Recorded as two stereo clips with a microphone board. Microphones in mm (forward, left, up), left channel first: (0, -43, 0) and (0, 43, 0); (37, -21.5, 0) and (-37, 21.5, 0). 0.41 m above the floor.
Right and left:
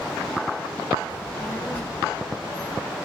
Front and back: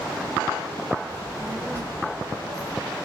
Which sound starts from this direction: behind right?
A child speaking, at 1.1 s.